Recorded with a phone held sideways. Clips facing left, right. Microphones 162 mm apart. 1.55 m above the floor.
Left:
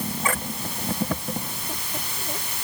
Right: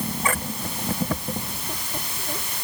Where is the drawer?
I don't hear a drawer.